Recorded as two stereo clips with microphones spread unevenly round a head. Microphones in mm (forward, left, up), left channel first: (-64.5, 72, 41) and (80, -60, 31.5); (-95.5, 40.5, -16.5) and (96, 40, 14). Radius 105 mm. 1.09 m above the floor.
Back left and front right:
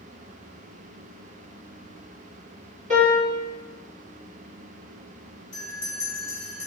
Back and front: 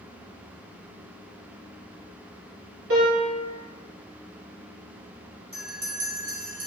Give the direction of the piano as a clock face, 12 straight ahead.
12 o'clock.